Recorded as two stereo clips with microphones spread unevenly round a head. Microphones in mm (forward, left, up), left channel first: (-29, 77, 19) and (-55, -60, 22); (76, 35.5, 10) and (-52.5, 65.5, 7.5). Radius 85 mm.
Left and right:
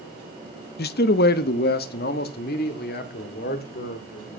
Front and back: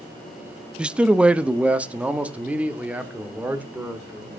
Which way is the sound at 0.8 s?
85° left.